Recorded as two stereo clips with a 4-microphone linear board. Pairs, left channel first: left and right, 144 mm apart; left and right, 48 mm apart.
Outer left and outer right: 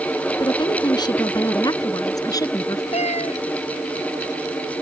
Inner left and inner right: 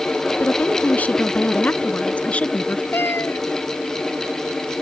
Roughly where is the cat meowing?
Left.